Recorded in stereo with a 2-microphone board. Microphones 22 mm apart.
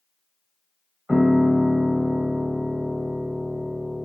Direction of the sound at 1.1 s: 30° right (ahead or behind).